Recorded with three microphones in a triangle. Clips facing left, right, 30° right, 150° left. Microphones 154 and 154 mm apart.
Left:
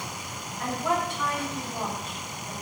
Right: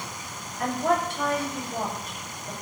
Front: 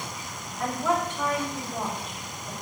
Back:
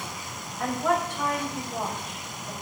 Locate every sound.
0.6 s a woman speaking: 130° right, 5 m